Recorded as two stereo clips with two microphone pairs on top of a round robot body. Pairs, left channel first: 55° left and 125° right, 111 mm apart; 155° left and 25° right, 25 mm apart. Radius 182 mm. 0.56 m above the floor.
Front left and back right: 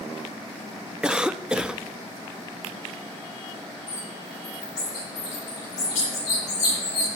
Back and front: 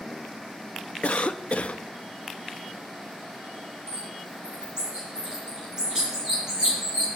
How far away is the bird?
About 8 m.